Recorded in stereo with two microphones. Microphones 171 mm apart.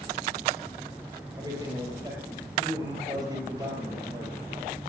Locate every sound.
1.4 s a man speaking: 20° right (ahead or behind), 5 m